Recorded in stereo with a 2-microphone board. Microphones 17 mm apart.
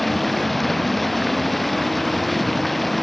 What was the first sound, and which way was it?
Running water, 5° left (ahead or behind).